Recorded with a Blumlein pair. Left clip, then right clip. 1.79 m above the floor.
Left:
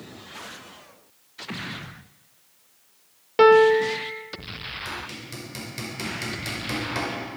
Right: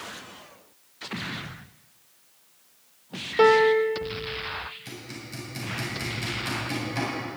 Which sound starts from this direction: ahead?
A piano, at 3.4 s.